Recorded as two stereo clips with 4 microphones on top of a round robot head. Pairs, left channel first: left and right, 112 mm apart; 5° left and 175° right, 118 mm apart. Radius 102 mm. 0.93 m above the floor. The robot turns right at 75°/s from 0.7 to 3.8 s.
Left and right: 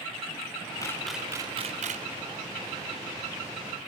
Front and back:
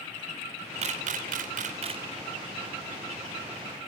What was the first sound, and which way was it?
A camera shutter, 160° left.